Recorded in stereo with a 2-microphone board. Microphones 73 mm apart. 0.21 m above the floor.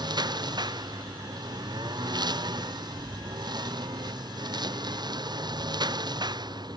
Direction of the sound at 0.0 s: 65° right (ahead or behind).